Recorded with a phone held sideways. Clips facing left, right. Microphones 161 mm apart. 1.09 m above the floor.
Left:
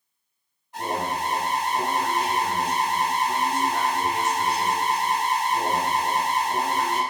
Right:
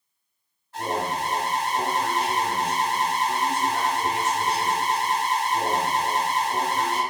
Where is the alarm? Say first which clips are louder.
Even; 15° left (ahead or behind), 1.2 m.